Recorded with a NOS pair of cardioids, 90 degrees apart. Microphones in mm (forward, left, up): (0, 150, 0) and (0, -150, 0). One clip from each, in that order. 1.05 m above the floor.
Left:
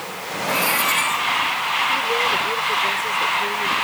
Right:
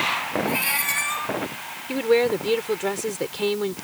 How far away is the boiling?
I don't hear boiling.